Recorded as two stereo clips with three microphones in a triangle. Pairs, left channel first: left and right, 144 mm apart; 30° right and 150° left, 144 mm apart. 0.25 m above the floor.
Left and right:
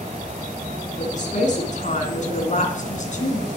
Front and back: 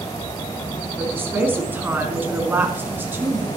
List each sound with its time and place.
1.0 s a woman speaking: 75° left, 2.5 m